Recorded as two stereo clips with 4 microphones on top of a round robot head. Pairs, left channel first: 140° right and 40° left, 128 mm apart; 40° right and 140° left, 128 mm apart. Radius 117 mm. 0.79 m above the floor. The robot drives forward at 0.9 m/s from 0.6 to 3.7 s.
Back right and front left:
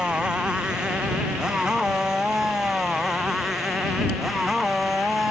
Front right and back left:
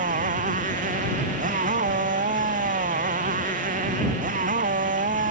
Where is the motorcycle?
125° left.